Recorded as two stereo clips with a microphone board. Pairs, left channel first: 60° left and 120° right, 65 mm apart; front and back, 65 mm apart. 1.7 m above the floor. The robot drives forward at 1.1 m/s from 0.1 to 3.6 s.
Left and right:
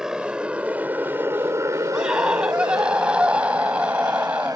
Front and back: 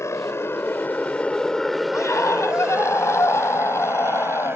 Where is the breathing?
No breathing in this recording.